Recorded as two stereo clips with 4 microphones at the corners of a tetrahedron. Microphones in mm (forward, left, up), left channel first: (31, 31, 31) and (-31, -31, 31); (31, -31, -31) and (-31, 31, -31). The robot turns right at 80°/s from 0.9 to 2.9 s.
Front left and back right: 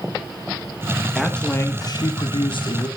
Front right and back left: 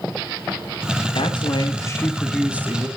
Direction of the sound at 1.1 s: 50° right.